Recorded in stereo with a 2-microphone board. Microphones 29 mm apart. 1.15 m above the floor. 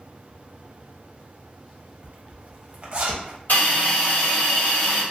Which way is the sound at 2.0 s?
45° right (ahead or behind).